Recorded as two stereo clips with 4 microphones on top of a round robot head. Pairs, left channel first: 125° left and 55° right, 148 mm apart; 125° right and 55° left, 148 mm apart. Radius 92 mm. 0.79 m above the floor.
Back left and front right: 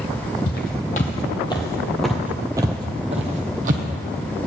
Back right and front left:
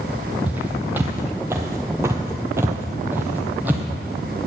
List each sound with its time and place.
0.5 s footsteps: 135° left, 1.1 m; by 3.9 s 25° right, 1.2 m